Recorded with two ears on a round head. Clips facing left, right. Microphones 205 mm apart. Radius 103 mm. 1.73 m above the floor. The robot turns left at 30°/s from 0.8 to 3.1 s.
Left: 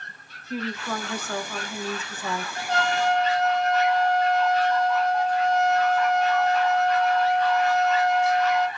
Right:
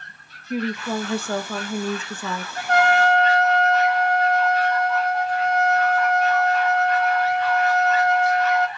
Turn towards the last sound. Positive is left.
turn(degrees=-5)  # may be behind; listen again after turning